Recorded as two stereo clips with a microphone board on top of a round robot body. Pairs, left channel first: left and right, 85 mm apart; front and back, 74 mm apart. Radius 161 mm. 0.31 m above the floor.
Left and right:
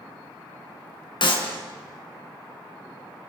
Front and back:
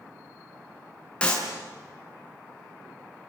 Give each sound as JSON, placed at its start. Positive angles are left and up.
{"t": 1.2, "sound": "a clap", "azimuth_deg": 75, "distance_m": 4.5}